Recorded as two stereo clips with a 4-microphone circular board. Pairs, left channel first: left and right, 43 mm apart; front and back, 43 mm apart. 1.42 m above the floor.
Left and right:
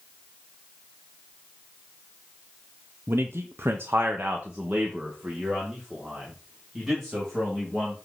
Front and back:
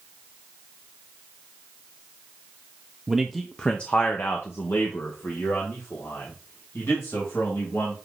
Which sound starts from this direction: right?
A man speaking, at 3.1 s.